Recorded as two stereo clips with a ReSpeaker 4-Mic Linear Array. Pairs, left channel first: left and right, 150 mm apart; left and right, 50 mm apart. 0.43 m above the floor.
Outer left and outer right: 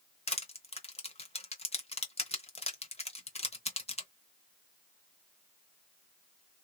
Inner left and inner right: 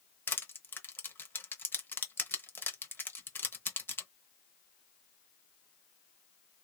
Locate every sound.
0.3 s crushing: 45° left (ahead or behind), 0.9 m